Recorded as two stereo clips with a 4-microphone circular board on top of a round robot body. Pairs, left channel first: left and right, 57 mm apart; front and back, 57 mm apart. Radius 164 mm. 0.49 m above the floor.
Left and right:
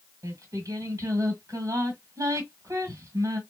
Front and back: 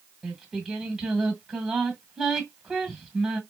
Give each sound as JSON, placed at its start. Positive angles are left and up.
{"t": 0.2, "sound": "singing", "azimuth_deg": -95, "distance_m": 1.6}